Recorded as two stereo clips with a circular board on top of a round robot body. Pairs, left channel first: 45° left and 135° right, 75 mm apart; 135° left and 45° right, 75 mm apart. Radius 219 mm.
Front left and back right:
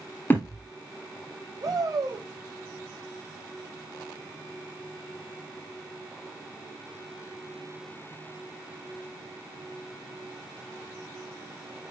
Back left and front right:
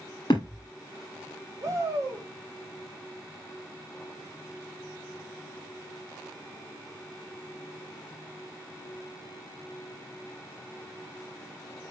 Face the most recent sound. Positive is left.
turn(degrees=-95)